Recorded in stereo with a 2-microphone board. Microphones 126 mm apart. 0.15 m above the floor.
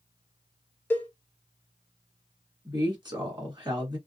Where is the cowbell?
15° left (ahead or behind), 0.7 m.